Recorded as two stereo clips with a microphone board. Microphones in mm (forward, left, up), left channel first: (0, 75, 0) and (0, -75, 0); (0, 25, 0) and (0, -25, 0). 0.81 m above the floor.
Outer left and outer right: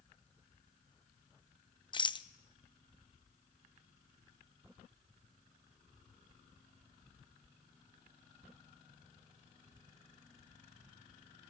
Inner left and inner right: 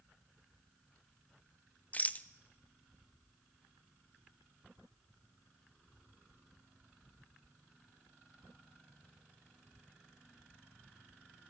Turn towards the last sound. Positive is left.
turn(degrees=35)  # may be behind; listen again after turning